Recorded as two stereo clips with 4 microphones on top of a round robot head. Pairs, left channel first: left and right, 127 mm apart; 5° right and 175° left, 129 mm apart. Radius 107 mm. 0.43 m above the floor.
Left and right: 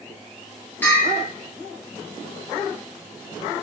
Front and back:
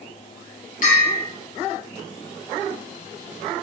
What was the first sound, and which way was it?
A bell, 10° left.